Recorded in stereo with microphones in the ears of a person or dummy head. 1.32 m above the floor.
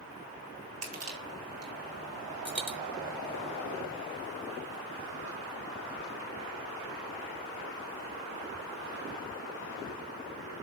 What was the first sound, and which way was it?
Crushing, 75° right (ahead or behind).